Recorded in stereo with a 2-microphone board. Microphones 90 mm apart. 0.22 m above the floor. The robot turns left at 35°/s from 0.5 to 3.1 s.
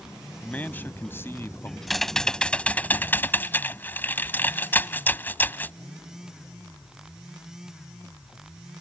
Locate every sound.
0.4 s a man speaking: 140° left; by 1.8 s 95° left
1.9 s typing on a keyboard: 175° left; by 5.8 s 135° left